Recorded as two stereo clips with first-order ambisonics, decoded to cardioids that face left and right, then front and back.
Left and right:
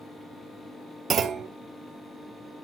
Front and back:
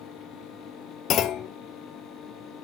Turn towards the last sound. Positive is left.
turn(degrees=-40)